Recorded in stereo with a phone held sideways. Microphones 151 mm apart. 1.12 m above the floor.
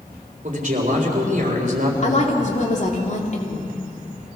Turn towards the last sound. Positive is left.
turn(degrees=50)  # may be behind; listen again after turning